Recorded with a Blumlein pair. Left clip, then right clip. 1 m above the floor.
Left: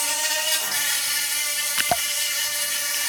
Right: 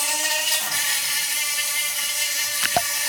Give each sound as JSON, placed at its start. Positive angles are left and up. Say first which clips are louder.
{"t": 0.0, "sound": "an insect", "louder": "right 1 dB", "azimuth_deg": -5, "distance_m": 0.8}